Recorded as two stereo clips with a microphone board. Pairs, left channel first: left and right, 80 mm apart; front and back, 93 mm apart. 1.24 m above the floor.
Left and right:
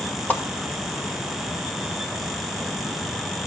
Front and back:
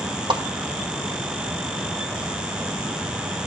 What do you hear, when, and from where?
0.3 s a whoosh: 155° left, 1.3 m